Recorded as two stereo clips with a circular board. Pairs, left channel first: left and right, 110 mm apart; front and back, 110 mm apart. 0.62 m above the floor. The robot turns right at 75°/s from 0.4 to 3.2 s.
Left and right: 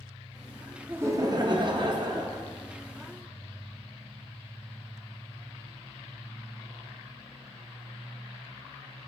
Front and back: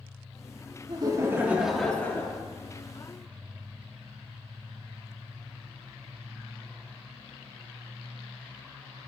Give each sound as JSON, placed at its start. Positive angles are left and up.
{"t": 0.9, "sound": "laughter", "azimuth_deg": -155, "distance_m": 0.8}